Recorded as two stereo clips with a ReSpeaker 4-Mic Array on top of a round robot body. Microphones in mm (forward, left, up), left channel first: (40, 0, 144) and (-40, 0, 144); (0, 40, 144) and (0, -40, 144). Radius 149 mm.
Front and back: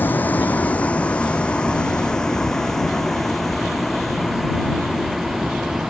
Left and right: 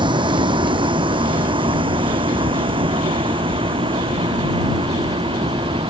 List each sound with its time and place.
0.0 s a vehicle: 70° right; by 5.9 s 95° right